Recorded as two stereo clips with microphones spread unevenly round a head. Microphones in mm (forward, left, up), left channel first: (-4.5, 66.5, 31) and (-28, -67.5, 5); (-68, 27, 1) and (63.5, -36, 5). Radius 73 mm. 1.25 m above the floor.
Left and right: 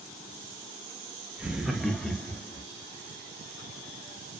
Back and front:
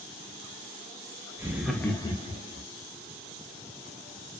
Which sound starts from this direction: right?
Laughter, at 1.4 s.